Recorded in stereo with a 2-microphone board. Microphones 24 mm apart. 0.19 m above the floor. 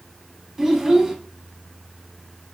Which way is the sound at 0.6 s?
20° right (ahead or behind).